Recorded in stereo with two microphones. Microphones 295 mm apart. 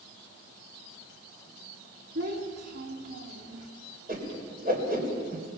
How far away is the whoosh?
About 4 m.